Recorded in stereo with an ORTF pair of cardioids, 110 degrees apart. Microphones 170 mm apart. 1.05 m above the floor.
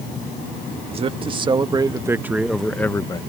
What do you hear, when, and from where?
0.9 s a man speaking: 35° right; by 3.2 s 30° left